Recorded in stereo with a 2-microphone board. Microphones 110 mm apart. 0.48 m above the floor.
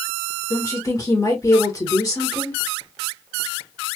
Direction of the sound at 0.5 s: 30° left (ahead or behind).